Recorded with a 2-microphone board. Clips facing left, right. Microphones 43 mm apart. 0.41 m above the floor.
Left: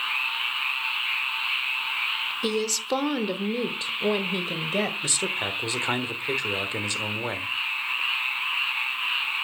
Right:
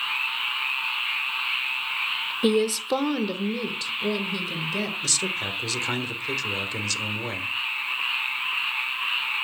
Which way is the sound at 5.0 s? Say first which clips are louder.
Even; 20° left (ahead or behind).